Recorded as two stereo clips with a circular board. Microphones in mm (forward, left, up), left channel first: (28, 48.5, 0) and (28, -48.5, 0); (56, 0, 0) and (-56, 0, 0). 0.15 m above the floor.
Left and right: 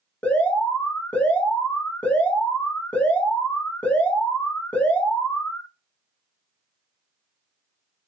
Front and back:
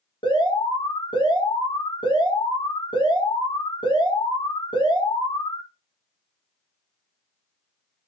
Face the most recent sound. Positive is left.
turn(degrees=20)